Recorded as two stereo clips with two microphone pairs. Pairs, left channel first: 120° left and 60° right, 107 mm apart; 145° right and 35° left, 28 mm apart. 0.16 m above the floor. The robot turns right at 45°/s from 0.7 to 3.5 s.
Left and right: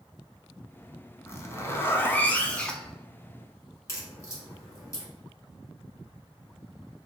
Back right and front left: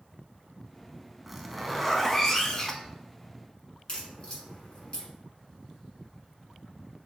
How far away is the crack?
About 1.5 m.